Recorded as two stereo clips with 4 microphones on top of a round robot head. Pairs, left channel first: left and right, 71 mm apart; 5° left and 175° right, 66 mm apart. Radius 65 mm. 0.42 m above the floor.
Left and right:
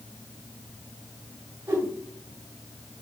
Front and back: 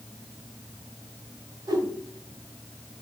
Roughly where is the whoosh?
Behind right.